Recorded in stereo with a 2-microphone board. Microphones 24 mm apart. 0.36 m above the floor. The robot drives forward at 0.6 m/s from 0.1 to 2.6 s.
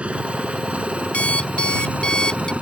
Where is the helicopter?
60° right (ahead or behind); by 2.6 s 70° right (ahead or behind).